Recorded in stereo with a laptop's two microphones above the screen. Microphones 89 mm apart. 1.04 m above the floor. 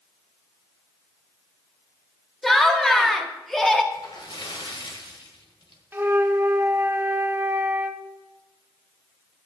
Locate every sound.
2.4 s laughter: 5° left (ahead or behind), 1.5 m
3.9 s a splash: 65° left (ahead or behind), 1.5 m
5.9 s a flute: 25° right (ahead or behind), 0.7 m